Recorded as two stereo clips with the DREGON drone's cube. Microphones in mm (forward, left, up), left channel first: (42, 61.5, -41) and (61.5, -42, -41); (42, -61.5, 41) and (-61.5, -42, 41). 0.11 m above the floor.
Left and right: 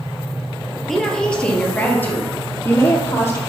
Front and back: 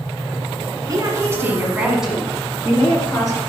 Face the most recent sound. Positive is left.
turn(degrees=50)